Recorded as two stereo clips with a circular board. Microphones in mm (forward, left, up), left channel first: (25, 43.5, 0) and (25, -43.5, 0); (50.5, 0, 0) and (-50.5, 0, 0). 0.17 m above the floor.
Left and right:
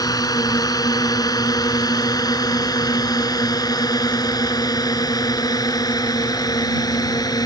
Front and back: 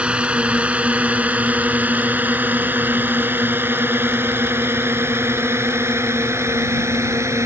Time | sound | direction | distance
0.0 | a drone | 105° left | ?